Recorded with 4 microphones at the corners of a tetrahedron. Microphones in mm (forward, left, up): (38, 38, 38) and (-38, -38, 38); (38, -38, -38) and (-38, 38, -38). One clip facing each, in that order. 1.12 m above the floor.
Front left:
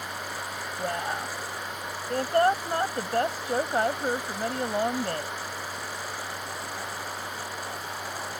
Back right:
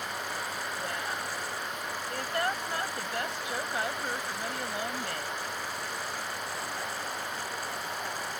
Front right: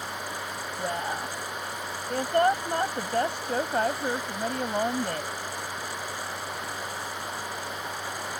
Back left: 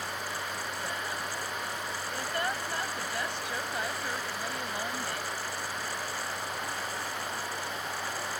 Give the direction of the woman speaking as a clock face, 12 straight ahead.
12 o'clock.